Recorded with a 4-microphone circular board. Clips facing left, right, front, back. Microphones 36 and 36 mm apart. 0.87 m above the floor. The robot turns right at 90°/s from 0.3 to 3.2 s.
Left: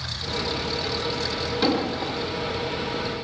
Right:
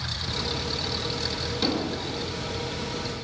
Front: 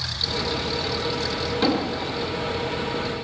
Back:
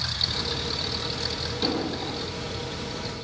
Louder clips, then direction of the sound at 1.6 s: Left 4 dB, front 4 dB; 20° left.